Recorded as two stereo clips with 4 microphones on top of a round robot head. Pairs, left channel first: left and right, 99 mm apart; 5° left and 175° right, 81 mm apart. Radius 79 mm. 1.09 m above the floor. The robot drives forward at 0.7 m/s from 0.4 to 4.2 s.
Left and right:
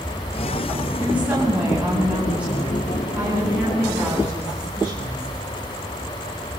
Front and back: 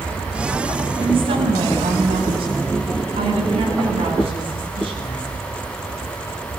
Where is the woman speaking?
170° right, 8.5 m.